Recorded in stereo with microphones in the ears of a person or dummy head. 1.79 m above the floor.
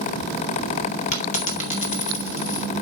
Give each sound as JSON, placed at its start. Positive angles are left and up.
{"t": 1.1, "sound": "a dropped coin", "side_deg": 35, "distance_m": 1.9}